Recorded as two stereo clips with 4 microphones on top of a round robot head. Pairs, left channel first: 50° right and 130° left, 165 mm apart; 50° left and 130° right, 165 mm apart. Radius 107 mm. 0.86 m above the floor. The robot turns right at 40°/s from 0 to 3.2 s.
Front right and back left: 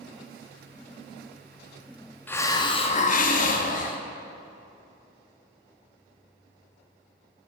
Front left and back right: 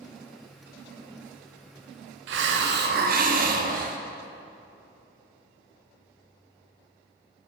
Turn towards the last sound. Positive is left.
turn(degrees=-90)